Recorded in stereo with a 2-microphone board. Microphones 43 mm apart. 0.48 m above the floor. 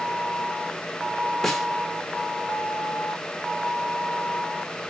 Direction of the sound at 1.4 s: 5° left (ahead or behind).